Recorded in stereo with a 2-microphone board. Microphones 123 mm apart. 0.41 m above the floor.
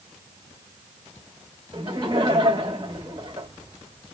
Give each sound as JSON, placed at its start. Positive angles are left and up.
{"t": 1.7, "sound": "laughter", "side_deg": -35, "distance_m": 1.6}